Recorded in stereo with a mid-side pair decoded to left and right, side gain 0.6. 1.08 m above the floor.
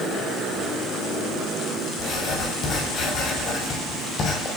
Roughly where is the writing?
Ahead left.